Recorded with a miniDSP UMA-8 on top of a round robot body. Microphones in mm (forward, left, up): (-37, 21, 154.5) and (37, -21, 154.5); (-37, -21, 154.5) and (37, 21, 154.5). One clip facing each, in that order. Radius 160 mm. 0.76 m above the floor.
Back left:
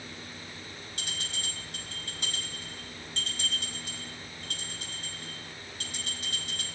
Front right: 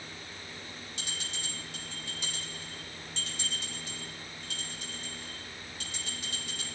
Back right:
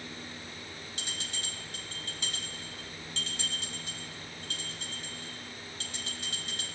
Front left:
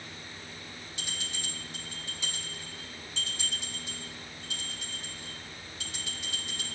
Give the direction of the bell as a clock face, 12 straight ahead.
6 o'clock.